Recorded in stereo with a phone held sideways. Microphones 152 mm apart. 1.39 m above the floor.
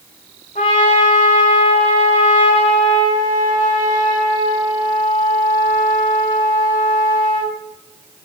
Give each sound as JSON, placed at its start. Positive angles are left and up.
{"t": 0.6, "sound": "a trumpet", "side_deg": 55, "distance_m": 2.0}